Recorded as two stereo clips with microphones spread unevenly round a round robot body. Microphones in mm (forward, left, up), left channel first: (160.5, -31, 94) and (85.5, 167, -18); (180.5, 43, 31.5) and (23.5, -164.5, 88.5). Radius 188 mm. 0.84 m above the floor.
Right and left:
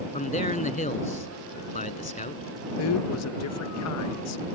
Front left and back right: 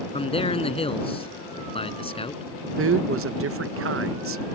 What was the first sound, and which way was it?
A man speaking, 15° right.